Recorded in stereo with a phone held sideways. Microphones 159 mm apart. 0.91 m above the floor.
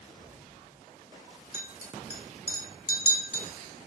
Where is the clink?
85° left, 1.4 m.